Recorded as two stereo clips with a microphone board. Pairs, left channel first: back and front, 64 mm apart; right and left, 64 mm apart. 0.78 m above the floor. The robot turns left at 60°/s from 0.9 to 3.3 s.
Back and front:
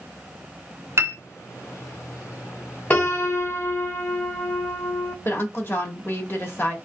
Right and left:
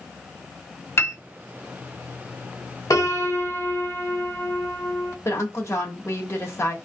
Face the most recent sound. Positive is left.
turn(degrees=-130)